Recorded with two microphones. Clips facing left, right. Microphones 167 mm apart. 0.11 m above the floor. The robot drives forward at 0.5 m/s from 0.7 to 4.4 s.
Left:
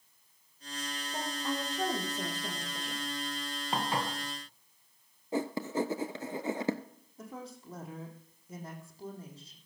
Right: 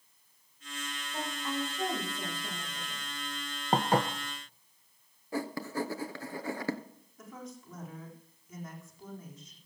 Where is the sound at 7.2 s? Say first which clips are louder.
Left 1 dB; 30° left (ahead or behind), 4 m.